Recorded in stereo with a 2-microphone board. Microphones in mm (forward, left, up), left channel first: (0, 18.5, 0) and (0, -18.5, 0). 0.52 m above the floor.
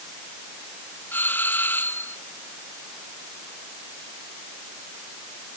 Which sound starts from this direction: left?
A doorbell, at 1.1 s.